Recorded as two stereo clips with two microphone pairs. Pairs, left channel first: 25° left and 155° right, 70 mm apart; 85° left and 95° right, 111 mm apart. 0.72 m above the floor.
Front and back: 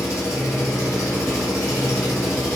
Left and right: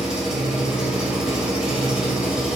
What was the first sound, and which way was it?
An engine running, 5° right.